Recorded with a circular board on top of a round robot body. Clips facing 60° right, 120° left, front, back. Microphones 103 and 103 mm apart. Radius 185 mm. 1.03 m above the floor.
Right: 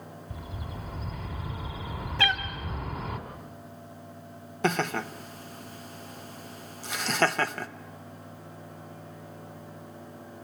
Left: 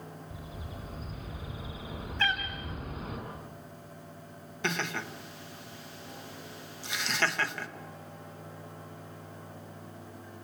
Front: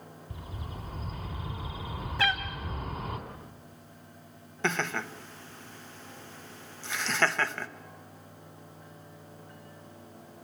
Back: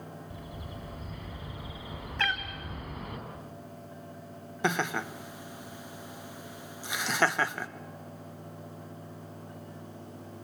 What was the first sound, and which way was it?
A bird, 60° right.